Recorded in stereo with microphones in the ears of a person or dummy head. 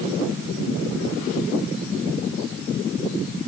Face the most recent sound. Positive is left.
No sound to turn to.